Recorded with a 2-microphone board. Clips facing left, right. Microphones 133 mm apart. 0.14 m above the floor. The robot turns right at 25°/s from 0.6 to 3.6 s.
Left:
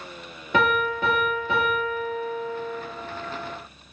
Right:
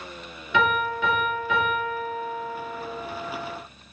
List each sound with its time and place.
0.5 s a piano: 105° left, 2 m; by 2.8 s 160° left, 2 m